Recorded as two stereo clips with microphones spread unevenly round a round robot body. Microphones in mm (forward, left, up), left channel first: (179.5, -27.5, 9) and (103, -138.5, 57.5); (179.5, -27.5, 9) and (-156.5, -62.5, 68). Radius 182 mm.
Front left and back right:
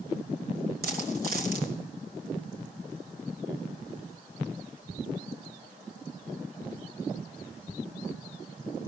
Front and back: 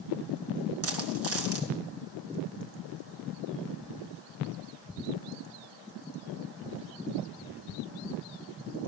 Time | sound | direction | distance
0.8 | a dropped coin | 125° right | 3 m